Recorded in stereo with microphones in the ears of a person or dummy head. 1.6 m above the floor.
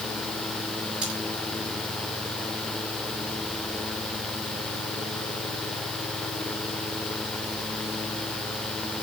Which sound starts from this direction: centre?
Cutlery clinking, at 1.0 s.